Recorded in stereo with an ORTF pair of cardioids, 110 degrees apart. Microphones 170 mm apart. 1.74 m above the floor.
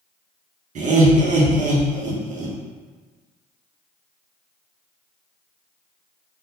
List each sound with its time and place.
0.8 s laughter: 50° right, 1.1 m